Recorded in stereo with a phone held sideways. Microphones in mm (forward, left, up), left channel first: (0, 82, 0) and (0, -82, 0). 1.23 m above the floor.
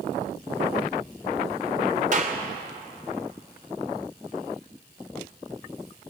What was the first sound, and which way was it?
A clap, 50° right (ahead or behind).